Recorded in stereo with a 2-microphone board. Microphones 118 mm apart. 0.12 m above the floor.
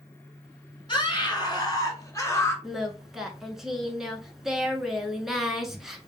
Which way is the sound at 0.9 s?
40° left (ahead or behind).